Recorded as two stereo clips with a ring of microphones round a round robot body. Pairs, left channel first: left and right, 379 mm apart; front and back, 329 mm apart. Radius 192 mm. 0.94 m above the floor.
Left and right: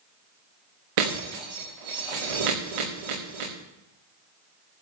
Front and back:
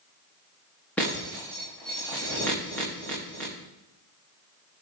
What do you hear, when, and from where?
1.0 s breaking glass: 85° right, 6 m